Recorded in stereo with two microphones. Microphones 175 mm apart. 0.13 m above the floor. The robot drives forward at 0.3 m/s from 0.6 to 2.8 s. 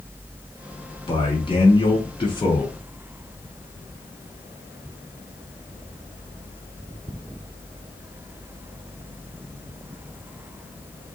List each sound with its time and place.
1.1 s a man speaking: 30° left (ahead or behind), 1.2 m; by 2.8 s 25° left (ahead or behind), 1.3 m